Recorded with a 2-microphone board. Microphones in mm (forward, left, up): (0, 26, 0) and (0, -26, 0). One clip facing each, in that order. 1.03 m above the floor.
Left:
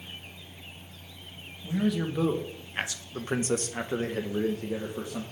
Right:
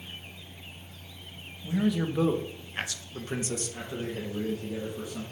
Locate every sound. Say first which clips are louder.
1.6 s a man speaking: right 1 dB; 15° right (ahead or behind), 1.1 m; by 5.2 s 55° left (ahead or behind), 1.1 m